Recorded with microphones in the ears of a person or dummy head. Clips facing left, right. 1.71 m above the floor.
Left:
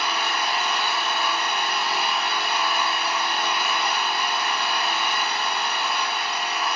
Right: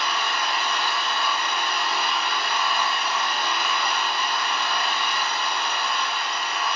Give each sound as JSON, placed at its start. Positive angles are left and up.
{"t": 0.0, "sound": "an engine running", "side_deg": 5, "distance_m": 1.7}